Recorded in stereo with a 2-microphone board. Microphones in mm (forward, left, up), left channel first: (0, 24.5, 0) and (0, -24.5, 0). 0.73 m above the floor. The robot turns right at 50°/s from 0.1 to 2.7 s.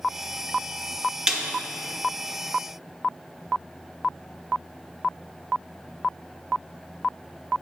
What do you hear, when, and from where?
1.3 s a snare drum: 15° right (ahead or behind), 1.0 m; by 1.4 s 5° right (ahead or behind), 1.0 m